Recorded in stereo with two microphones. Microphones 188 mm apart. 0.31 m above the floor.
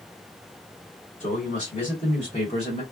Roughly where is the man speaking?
Left.